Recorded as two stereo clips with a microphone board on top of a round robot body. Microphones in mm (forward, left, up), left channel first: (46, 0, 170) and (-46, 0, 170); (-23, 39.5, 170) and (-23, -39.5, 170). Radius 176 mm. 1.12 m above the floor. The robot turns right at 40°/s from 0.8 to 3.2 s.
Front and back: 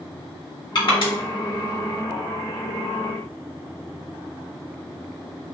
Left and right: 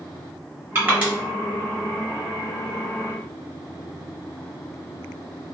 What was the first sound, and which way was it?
Crushing, 30° right.